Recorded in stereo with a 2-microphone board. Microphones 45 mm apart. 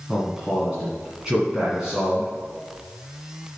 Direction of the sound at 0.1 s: 10° right (ahead or behind).